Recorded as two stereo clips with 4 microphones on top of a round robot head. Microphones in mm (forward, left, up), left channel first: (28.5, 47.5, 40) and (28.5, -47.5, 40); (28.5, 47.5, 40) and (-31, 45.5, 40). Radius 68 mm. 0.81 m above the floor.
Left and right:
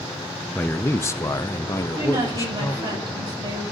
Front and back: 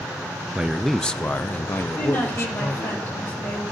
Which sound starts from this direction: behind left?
A man speaking, at 0.6 s.